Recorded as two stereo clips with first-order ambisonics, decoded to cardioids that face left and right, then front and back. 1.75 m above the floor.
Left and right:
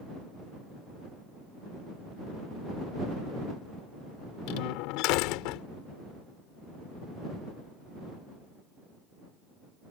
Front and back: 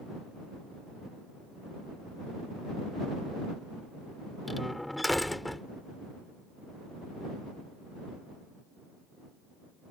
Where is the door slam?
85° left.